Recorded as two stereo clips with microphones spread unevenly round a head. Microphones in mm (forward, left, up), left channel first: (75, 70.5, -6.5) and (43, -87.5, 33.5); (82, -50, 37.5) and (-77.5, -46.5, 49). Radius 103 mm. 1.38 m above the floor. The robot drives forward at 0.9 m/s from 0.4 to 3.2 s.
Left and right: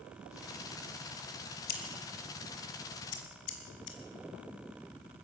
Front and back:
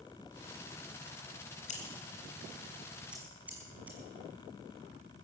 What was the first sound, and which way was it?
Scissors, 55° left.